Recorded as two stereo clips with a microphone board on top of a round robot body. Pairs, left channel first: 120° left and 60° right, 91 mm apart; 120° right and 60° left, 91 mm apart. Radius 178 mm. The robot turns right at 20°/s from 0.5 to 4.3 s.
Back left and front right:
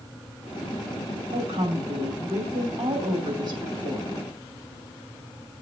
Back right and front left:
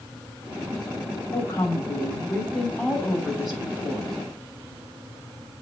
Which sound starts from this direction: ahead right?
A woman speaking, at 1.3 s.